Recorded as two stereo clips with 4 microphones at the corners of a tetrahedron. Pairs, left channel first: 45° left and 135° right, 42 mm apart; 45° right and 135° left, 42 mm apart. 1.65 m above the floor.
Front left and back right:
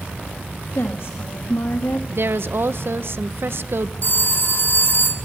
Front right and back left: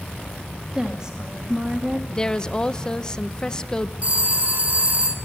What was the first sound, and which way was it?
A woman speaking, 65° left.